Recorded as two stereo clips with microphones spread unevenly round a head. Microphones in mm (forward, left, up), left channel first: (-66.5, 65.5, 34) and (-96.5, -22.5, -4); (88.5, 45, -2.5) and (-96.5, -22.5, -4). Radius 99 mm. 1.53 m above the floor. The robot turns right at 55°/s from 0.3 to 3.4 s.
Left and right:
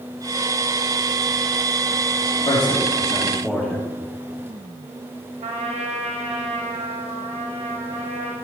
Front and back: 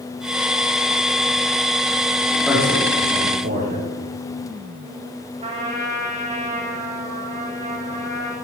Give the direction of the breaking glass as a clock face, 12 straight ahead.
No breaking glass in this recording.